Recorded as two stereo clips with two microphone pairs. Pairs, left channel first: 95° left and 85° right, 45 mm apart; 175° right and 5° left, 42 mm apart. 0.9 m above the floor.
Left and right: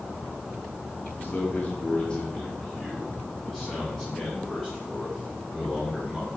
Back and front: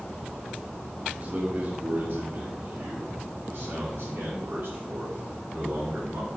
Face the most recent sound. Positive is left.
turn(degrees=5)